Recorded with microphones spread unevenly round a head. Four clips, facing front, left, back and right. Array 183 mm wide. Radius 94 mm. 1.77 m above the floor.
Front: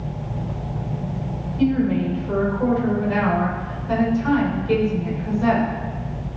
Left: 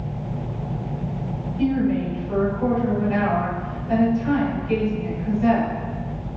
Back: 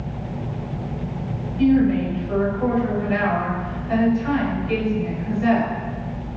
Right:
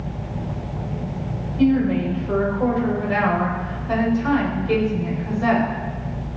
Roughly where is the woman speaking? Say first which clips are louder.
Right 3 dB, back 3 dB; ahead right.